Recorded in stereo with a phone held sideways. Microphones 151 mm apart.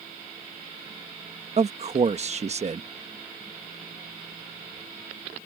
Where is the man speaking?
45° right (ahead or behind).